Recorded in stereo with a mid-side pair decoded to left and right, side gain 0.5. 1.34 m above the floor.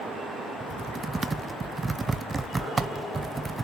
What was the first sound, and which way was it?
Typing on a keyboard, 25° right.